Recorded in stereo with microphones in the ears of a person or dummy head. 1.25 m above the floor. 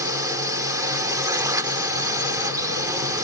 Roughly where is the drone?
Centre.